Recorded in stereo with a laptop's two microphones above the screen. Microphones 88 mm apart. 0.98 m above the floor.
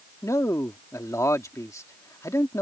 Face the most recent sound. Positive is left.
turn(degrees=35)  # may be behind; listen again after turning